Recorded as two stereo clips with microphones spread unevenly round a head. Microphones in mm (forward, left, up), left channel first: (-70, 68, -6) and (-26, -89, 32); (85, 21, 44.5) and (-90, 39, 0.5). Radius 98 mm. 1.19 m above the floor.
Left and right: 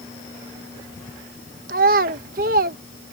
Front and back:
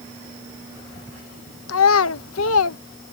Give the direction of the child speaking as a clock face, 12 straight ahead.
1 o'clock.